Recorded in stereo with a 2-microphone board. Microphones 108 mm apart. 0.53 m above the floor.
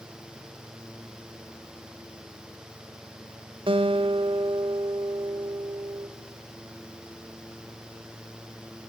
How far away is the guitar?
About 1.4 m.